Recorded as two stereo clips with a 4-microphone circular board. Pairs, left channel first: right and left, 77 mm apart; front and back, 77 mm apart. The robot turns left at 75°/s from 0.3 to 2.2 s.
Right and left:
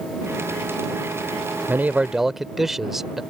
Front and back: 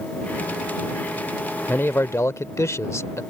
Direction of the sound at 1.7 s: 45° left.